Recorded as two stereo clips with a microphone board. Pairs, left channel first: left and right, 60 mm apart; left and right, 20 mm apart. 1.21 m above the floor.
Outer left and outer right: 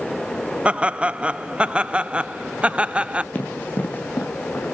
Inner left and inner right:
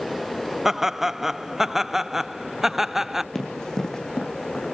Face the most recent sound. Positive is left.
turn(degrees=45)  # may be behind; listen again after turning